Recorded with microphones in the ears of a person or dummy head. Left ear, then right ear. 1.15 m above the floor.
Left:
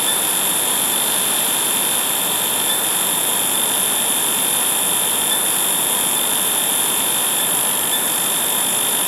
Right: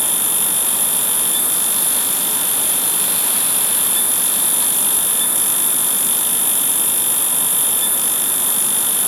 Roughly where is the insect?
Centre.